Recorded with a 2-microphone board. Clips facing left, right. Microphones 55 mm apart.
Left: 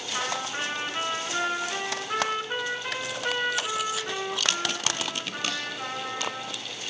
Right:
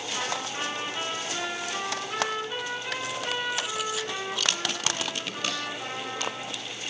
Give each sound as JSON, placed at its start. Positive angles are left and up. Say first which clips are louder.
{"t": 0.1, "sound": "a trumpet", "louder": "left 2 dB", "side_deg": 45, "distance_m": 3.5}